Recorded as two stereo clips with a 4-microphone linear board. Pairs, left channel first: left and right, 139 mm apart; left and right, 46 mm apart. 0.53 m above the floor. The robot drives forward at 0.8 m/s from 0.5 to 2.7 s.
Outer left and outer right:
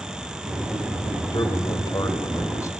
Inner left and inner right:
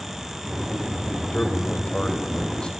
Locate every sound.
1.3 s a man speaking: 35° left (ahead or behind), 2.5 m; by 2.7 s 25° left (ahead or behind), 3 m